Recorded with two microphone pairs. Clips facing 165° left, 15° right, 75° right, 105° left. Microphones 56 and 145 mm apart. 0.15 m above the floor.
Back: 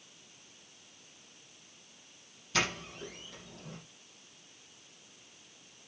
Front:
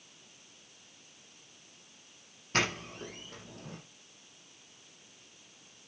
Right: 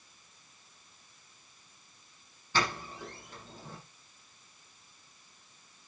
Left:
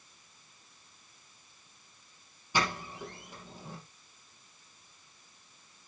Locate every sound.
2.5 s a doorbell: 30° left, 6 m